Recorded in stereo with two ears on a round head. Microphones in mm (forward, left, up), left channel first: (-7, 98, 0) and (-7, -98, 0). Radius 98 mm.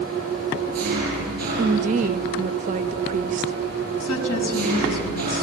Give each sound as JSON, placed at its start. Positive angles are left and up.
{"t": 0.0, "sound": "an engine running", "side_deg": -40, "distance_m": 9.5}
{"t": 1.6, "sound": "a woman speaking", "side_deg": -35, "distance_m": 0.6}
{"t": 4.0, "sound": "a woman speaking", "side_deg": 80, "distance_m": 5.0}